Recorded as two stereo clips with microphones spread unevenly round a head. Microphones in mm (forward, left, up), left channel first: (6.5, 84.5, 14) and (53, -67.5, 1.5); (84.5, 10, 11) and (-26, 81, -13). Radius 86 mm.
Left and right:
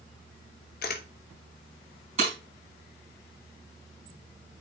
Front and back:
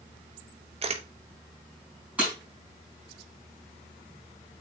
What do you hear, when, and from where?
0.8 s a camera shutter: 105° left, 1.0 m
2.2 s breaking glass: 130° right, 4 m